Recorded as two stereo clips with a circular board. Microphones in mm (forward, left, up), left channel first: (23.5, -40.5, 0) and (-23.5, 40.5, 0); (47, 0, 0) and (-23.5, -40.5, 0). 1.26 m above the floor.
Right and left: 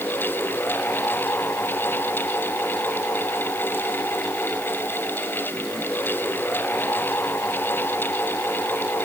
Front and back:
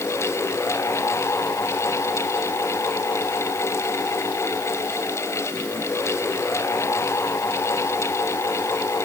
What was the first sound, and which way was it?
Only background noise.